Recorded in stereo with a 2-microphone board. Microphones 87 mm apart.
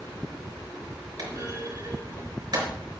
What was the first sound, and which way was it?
A clunk, 45° right (ahead or behind).